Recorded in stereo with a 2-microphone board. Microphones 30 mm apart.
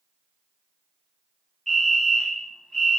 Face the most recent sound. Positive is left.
turn(degrees=5)  # may be behind; listen again after turning